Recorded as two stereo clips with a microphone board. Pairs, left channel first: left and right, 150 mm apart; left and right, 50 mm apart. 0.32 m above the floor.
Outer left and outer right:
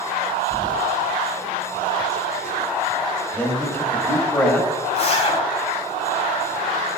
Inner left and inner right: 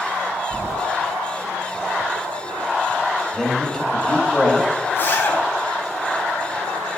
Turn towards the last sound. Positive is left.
turn(degrees=40)  # may be behind; listen again after turning